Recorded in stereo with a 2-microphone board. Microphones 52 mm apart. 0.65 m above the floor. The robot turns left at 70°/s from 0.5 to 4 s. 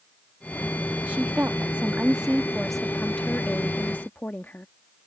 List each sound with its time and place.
1.1 s a woman speaking: 70° right; by 4.7 s 80° left